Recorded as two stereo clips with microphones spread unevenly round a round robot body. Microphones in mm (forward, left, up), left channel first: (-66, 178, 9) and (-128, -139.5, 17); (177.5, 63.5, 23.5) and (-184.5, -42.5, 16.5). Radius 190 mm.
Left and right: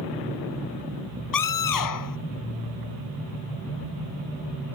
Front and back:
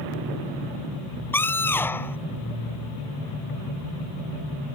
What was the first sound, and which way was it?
A scream, 100° left.